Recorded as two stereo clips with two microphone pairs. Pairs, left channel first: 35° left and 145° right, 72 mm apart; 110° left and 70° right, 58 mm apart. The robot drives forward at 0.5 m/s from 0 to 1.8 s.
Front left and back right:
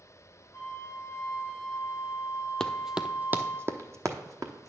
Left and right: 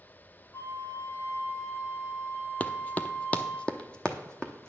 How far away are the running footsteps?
About 0.5 m.